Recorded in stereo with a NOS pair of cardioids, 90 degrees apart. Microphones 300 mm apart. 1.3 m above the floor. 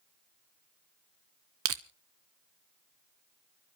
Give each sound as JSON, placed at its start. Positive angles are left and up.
{"t": 1.6, "sound": "crushing", "azimuth_deg": -50, "distance_m": 1.1}